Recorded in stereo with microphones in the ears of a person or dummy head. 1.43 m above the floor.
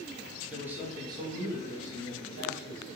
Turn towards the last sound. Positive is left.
turn(degrees=-80)